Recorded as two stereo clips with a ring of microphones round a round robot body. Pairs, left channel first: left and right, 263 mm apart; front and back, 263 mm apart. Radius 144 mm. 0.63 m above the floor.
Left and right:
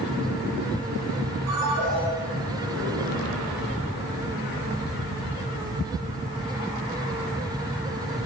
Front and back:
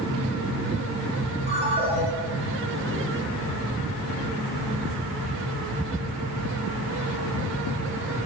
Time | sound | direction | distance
1.5 | a ringtone | 115° right | 8 m